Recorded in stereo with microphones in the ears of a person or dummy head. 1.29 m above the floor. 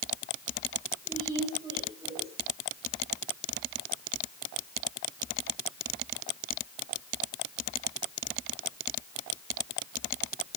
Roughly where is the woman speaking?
Centre.